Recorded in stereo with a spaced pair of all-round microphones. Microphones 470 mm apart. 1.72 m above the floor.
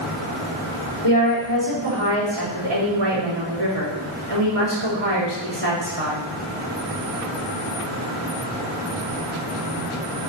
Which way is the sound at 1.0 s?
80° right.